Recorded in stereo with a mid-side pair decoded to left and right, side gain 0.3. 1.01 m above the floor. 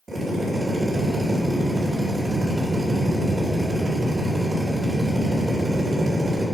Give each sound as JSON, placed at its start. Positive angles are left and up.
{"t": 0.1, "sound": "a drill", "azimuth_deg": -45, "distance_m": 3.5}